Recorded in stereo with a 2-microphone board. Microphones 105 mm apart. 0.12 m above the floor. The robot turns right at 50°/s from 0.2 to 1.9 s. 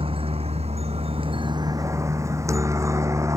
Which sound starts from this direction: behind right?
A helicopter, at 0.0 s.